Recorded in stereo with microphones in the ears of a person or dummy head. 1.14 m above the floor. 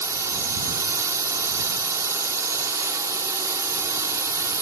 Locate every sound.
0.0 s a drone: 15° right (ahead or behind)